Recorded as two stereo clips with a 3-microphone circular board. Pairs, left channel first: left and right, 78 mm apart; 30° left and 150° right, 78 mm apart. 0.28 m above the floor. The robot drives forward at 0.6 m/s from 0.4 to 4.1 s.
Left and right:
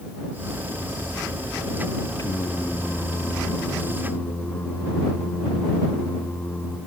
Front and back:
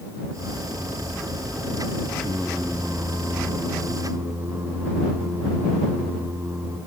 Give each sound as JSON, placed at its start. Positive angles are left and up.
{"t": 2.2, "sound": "singing", "azimuth_deg": 110, "distance_m": 0.8}